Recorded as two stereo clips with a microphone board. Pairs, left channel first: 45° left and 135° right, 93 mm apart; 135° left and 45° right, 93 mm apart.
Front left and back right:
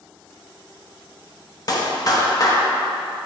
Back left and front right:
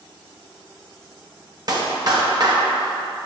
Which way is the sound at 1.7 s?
5° right.